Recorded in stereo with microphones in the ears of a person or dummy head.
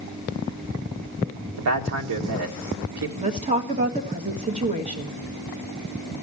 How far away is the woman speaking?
About 1.5 m.